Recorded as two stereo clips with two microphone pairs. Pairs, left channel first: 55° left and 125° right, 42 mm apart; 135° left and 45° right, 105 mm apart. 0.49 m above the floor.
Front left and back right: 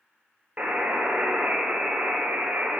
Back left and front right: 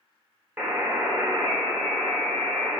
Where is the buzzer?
105° right, 1.6 m.